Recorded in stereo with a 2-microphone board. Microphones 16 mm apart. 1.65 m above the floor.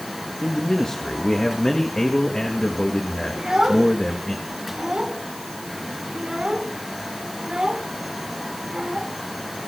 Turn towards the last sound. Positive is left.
turn(degrees=-55)  # may be behind; listen again after turning